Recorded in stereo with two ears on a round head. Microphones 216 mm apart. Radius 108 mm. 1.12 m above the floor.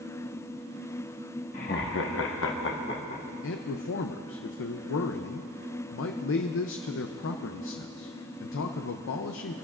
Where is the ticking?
No ticking in this recording.